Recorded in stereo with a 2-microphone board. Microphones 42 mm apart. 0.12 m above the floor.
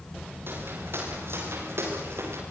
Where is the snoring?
I don't hear snoring.